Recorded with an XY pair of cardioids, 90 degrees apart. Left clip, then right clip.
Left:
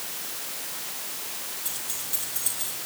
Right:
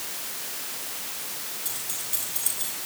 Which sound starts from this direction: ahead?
Keys jangling, at 1.6 s.